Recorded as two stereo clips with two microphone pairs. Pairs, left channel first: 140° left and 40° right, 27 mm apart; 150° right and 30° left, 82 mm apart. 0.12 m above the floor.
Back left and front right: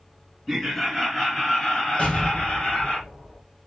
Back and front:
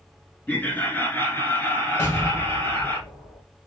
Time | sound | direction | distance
0.5 | laughter | 145° right | 1.2 m
2.0 | an explosion | 145° left | 2 m